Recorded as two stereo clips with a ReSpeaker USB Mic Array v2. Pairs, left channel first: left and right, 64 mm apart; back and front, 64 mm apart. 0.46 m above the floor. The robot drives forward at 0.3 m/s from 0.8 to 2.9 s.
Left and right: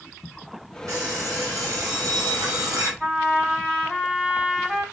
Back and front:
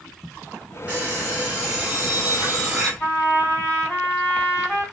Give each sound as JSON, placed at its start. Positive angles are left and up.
{"t": 0.9, "sound": "an alarm clock", "azimuth_deg": -65, "distance_m": 2.0}
{"t": 3.0, "sound": "a trumpet", "azimuth_deg": -145, "distance_m": 2.5}